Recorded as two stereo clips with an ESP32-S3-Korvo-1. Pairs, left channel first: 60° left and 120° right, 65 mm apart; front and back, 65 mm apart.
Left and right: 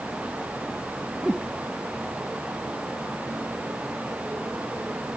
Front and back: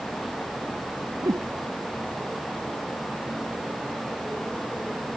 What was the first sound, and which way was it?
A whoosh, 150° left.